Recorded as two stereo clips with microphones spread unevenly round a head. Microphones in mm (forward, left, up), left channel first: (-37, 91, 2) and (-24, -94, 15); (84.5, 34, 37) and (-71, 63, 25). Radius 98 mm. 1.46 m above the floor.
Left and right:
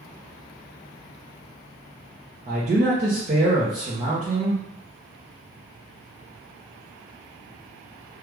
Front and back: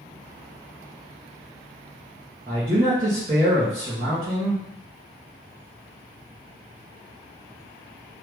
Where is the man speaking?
135° right, 0.8 m.